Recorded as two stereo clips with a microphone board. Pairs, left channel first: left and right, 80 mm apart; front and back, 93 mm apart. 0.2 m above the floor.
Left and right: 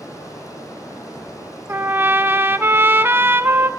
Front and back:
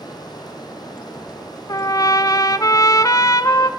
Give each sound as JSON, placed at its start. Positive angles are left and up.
{"t": 0.0, "sound": "running water", "azimuth_deg": 45, "distance_m": 5.0}
{"t": 1.7, "sound": "a trumpet", "azimuth_deg": -35, "distance_m": 0.8}